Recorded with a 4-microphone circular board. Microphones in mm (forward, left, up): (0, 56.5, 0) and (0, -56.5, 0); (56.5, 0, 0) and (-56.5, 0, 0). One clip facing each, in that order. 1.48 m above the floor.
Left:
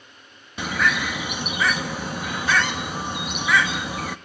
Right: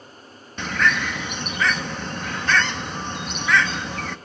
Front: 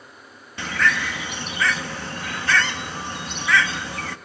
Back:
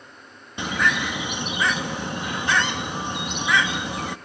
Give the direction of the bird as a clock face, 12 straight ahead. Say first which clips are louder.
Right 1 dB, even; 7 o'clock.